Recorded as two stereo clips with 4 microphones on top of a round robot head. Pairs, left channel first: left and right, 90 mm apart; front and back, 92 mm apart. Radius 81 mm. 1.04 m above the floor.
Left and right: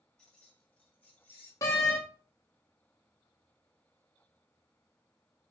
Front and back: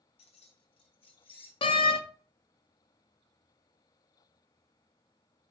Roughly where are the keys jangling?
Ahead.